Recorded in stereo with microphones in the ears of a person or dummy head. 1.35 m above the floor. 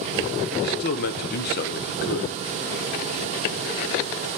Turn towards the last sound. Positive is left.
turn(degrees=50)  # may be behind; listen again after turning